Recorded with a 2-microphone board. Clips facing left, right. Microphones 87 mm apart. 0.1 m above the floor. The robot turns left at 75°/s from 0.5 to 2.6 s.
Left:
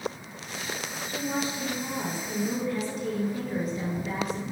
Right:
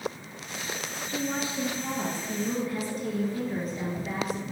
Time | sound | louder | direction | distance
1.1 | a woman speaking | left 1 dB | 65° right | 1.8 m